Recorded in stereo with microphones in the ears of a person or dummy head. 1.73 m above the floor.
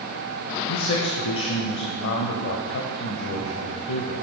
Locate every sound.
0.7 s a man speaking: 65° left (ahead or behind), 0.8 m